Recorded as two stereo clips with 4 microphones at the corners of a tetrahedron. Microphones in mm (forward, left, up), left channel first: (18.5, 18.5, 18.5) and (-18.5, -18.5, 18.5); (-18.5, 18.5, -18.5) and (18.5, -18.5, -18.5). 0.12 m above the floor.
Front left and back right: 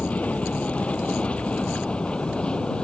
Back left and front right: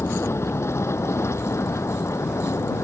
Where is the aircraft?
105° left; by 2.8 s 115° left.